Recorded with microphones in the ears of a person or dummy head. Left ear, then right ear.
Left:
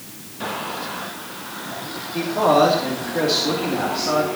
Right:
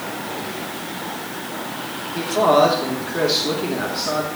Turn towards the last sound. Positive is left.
turn(degrees=-10)  # may be behind; listen again after turning